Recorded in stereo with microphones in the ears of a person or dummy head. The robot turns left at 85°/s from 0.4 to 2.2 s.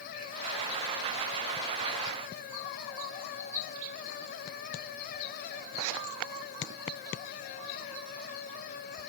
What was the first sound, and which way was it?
Only background noise.